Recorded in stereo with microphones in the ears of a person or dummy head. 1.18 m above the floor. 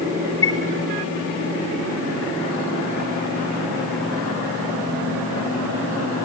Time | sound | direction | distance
0.4 | a chime | 15° left (ahead or behind) | 4.5 m